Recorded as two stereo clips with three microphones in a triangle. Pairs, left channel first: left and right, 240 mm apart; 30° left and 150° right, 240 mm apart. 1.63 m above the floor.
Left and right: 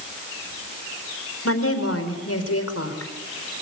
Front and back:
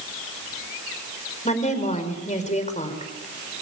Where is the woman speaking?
90° left, 5 m.